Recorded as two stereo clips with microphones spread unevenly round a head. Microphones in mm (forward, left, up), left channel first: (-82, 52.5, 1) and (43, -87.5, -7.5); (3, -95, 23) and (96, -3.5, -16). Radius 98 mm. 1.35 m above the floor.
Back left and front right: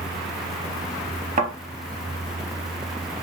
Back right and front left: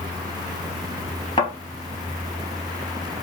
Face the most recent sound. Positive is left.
turn(degrees=-100)